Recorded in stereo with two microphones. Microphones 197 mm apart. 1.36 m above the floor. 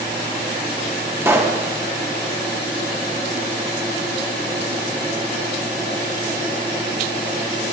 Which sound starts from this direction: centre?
A pop, at 1.2 s.